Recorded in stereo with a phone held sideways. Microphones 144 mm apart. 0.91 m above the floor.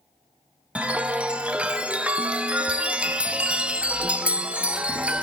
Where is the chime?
10° right (ahead or behind), 0.8 m.